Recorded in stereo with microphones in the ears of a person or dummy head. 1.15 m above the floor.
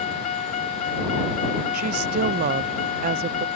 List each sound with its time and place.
0.0 s a vehicle: 35° left (ahead or behind)
1.7 s a woman speaking: 45° right (ahead or behind)